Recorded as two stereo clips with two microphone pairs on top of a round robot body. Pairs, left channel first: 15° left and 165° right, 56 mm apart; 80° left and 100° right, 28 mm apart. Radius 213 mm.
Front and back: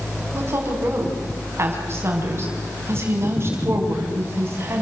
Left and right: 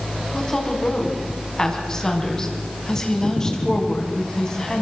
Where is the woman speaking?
150° left, 5 m.